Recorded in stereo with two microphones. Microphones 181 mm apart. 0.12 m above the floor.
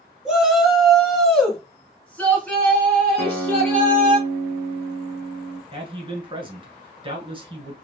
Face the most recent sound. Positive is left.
turn(degrees=-30)  # may be behind; listen again after turning